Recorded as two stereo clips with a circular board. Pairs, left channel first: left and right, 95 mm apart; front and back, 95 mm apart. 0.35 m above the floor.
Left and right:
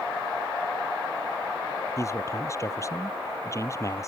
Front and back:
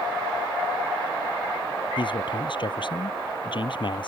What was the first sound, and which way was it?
A man speaking, 35° left.